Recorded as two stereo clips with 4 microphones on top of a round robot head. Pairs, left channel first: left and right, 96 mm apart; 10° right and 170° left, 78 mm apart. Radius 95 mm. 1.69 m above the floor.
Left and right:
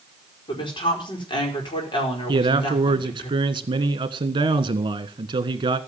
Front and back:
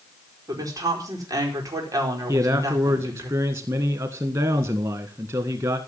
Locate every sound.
0.5 s a woman speaking: 125° left, 5 m
2.3 s a man speaking: 130° right, 1.6 m